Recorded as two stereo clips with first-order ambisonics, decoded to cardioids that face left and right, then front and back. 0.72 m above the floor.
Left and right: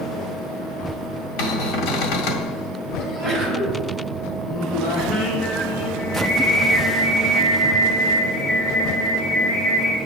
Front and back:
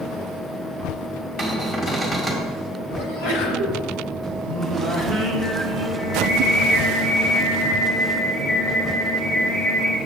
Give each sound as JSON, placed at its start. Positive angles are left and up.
{"t": 1.4, "sound": "a cupboard door", "azimuth_deg": 85, "distance_m": 2.0}
{"t": 3.0, "sound": "a sneeze", "azimuth_deg": 10, "distance_m": 4.0}
{"t": 4.5, "sound": "singing", "azimuth_deg": 55, "distance_m": 2.0}